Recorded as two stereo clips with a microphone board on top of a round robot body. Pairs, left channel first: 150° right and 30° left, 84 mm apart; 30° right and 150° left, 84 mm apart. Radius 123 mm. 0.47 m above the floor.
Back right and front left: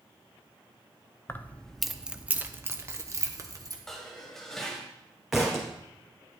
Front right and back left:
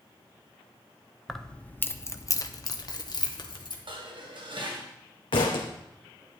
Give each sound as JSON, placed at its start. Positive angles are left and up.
{"t": 1.3, "sound": "keys jangling", "azimuth_deg": -115, "distance_m": 0.8}
{"t": 3.9, "sound": "dishes clattering", "azimuth_deg": 125, "distance_m": 1.8}
{"t": 5.3, "sound": "a thud", "azimuth_deg": -60, "distance_m": 1.6}